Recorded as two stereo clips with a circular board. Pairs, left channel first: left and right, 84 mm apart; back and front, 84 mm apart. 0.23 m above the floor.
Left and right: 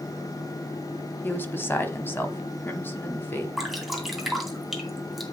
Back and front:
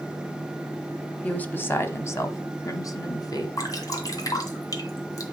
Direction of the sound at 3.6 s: Straight behind.